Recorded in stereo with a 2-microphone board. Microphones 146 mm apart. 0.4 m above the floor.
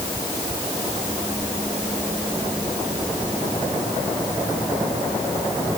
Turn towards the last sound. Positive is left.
No sound to turn to.